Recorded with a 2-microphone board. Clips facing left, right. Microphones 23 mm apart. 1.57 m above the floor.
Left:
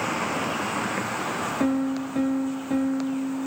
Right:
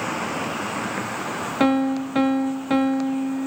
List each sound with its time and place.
1.6 s a piano: 60° right (ahead or behind), 0.5 m